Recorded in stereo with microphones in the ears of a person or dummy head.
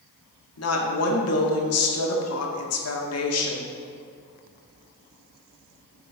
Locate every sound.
0.6 s a woman speaking: 75° left (ahead or behind), 1.6 m